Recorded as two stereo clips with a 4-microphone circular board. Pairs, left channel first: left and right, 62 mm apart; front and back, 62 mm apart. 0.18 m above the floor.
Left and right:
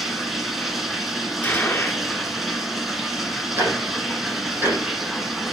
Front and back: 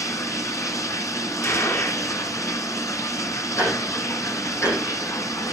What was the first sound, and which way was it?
Running water, straight ahead.